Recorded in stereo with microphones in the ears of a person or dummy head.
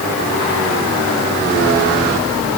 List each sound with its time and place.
Only background noise.